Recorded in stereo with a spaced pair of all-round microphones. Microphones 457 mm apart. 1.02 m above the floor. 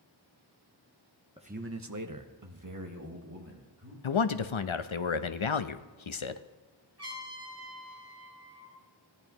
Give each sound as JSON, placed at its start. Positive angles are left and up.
{"t": 1.4, "sound": "a man speaking", "side_deg": -10, "distance_m": 0.9}
{"t": 4.0, "sound": "a man speaking", "side_deg": 80, "distance_m": 0.7}
{"t": 7.0, "sound": "a trumpet", "side_deg": -60, "distance_m": 5.5}